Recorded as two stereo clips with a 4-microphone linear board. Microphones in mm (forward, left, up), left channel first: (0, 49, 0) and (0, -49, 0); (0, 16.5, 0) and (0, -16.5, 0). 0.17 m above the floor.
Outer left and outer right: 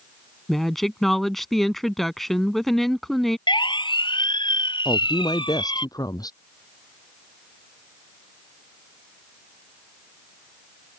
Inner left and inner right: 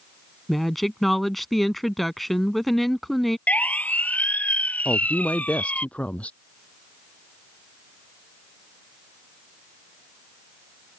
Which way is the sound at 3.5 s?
55° left (ahead or behind).